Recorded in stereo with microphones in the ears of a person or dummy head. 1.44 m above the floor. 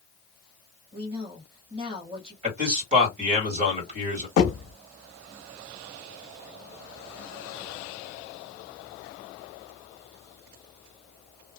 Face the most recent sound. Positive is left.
turn(degrees=55)  # may be behind; listen again after turning